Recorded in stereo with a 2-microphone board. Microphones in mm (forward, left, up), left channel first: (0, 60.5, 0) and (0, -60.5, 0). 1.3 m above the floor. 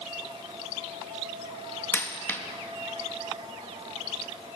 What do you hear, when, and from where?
1.9 s a dropped coin: 15° left (ahead or behind), 0.6 m